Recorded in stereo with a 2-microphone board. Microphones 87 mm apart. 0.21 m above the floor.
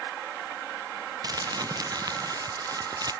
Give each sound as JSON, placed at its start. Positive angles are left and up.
{"t": 1.2, "sound": "crumpling", "side_deg": -50}